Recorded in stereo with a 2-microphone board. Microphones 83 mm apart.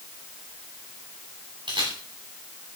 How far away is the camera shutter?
About 7.5 m.